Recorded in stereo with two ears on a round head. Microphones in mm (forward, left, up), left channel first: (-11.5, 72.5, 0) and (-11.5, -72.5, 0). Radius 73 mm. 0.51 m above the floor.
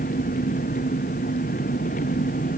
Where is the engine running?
50° left (ahead or behind).